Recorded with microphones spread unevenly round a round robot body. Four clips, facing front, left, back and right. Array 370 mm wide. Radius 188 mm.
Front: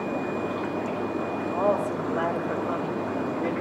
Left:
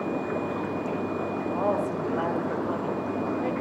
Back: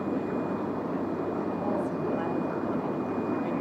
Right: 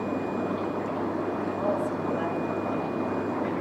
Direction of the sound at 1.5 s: 10° left.